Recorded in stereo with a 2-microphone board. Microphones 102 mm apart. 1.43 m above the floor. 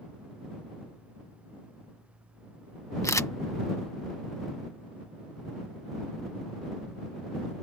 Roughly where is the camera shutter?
Left.